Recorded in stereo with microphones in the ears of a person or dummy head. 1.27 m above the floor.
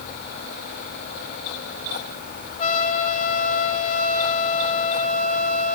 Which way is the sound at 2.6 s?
40° left (ahead or behind).